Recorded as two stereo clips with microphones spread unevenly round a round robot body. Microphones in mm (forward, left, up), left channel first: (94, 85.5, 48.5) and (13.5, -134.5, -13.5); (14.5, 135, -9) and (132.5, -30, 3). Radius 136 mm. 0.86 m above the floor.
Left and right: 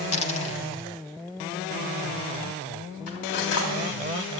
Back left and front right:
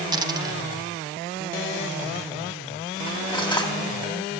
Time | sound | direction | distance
0.1 | a dropped coin | 15° left | 1.9 m
3.1 | cutlery clinking | 60° left | 3 m